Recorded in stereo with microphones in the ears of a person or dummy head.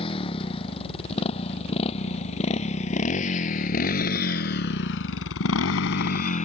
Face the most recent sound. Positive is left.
turn(degrees=40)  # may be behind; listen again after turning